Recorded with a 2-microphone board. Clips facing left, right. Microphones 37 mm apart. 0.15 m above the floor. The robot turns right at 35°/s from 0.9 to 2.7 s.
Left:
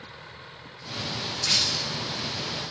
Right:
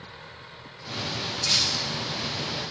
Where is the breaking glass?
40° left (ahead or behind), 5 m; by 1.9 s 55° left (ahead or behind), 5 m.